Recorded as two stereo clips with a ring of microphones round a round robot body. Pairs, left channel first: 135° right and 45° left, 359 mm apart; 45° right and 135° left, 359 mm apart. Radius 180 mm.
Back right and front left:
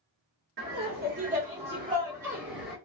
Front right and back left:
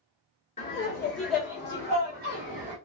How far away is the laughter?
About 1.1 m.